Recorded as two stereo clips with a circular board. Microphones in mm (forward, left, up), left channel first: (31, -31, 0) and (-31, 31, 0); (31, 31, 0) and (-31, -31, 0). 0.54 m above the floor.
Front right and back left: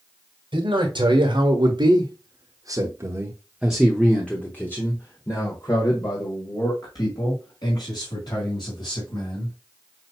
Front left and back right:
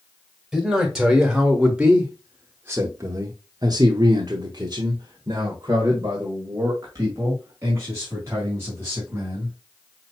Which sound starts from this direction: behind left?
A man speaking, at 0.5 s.